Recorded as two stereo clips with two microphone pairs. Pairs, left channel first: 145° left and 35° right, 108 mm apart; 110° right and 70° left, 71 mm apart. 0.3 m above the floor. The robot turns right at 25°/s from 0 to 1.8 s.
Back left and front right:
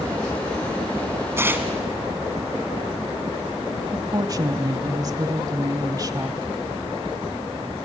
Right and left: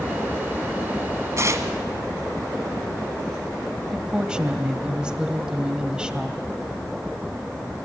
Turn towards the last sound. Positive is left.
turn(degrees=0)